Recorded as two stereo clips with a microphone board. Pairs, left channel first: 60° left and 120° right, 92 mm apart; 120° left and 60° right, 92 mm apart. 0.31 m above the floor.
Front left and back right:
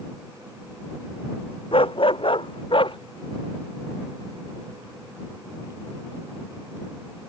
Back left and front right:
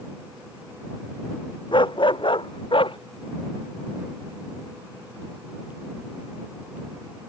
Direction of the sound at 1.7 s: 85° left.